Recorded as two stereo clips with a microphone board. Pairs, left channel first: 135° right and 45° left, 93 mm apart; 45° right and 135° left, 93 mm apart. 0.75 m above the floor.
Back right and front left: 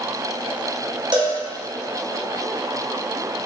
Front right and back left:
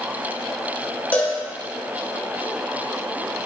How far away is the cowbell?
About 1.0 m.